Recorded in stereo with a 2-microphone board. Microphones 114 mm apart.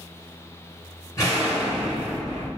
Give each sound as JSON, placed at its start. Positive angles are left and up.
{"t": 1.2, "sound": "an explosion", "side_deg": 25, "distance_m": 1.2}